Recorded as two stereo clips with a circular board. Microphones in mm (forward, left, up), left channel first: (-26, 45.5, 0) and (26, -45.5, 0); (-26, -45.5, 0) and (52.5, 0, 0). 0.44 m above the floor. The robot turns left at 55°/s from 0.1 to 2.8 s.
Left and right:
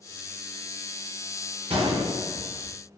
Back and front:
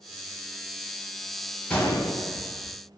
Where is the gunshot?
70° right, 0.7 m; by 2.7 s 130° right, 0.7 m.